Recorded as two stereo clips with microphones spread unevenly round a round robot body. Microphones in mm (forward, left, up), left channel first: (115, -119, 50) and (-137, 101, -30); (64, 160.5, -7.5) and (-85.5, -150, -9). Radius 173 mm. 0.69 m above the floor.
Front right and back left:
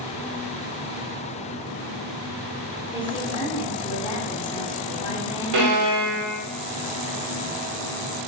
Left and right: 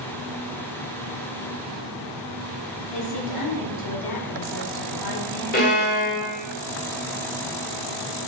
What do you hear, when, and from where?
2.9 s a woman speaking: 40° left, 1.8 m
5.5 s a violin: 125° left, 1.9 m